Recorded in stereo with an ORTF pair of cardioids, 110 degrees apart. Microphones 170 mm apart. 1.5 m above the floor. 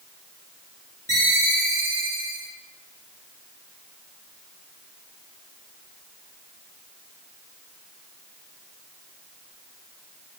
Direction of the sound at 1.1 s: 20° left.